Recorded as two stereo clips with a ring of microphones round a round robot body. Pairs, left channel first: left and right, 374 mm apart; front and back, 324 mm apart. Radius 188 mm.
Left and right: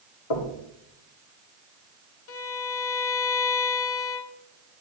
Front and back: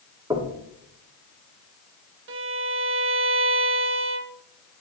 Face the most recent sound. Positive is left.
turn(degrees=135)